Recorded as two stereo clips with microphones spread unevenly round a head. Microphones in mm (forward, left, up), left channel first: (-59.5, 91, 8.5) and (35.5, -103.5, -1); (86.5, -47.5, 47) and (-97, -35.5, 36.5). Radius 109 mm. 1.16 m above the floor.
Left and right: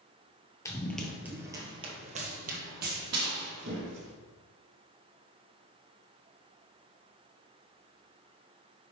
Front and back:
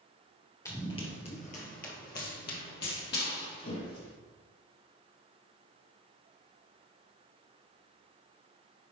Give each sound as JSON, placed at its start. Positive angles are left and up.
{"t": 0.7, "sound": "running footsteps", "azimuth_deg": 55, "distance_m": 1.3}